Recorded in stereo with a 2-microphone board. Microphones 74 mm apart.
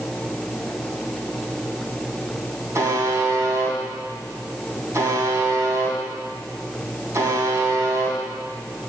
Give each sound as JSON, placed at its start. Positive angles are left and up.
{"t": 2.8, "sound": "a buzzer", "side_deg": -40, "distance_m": 2.5}